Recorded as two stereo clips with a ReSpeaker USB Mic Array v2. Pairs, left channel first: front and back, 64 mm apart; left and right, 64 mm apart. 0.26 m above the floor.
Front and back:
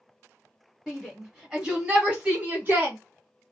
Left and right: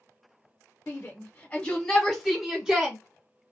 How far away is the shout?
About 1.0 m.